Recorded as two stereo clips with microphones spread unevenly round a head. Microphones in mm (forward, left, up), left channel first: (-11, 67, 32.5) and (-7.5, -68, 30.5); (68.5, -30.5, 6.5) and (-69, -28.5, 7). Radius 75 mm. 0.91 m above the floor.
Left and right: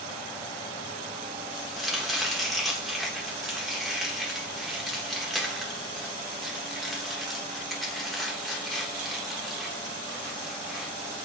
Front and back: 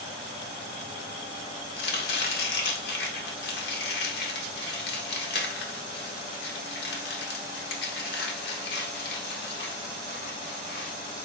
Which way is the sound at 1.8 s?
Straight ahead.